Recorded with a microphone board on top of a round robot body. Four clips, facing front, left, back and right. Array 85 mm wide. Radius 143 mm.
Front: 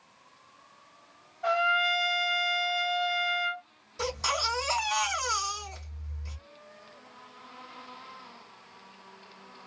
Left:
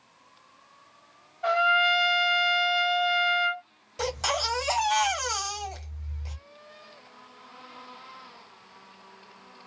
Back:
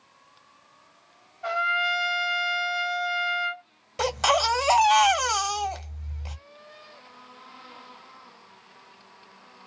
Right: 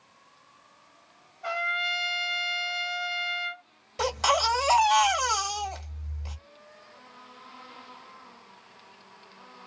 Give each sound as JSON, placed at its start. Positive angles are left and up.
{"t": 1.4, "sound": "a trumpet", "azimuth_deg": 90, "distance_m": 1.8}
{"t": 4.0, "sound": "a baby crying", "azimuth_deg": -170, "distance_m": 1.5}